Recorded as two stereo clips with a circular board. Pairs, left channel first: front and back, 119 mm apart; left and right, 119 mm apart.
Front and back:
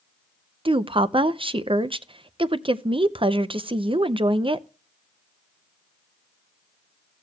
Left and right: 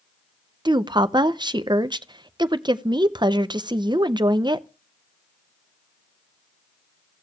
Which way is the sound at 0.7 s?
140° right.